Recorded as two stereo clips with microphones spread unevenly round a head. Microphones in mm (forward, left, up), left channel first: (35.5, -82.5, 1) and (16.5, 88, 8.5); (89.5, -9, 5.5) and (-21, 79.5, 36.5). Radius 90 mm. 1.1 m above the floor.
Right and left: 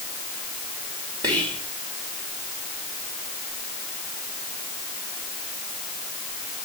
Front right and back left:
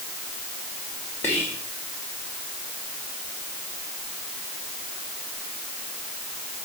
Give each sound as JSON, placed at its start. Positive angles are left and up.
{"t": 1.2, "sound": "whispering", "azimuth_deg": 30, "distance_m": 2.5}